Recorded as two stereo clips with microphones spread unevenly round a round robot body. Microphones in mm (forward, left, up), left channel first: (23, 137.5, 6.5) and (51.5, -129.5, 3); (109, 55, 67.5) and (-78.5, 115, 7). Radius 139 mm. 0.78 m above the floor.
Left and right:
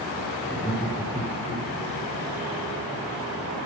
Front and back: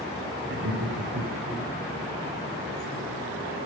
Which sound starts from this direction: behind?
Laughter, at 0.5 s.